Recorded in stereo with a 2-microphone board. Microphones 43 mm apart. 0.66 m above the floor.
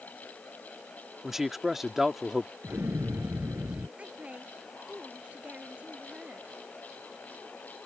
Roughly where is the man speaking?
Centre.